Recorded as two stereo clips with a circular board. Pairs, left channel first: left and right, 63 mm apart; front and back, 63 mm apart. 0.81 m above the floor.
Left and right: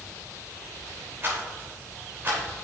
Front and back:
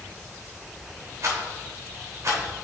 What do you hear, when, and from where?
1.2 s a rattle: 140° right, 3 m